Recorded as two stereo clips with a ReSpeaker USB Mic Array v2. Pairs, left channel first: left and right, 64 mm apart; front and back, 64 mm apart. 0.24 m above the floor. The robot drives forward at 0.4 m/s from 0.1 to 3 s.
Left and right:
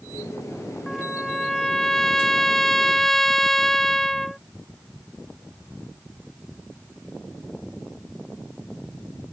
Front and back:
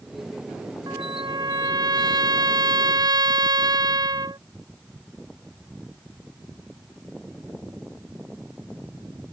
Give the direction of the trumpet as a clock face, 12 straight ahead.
6 o'clock.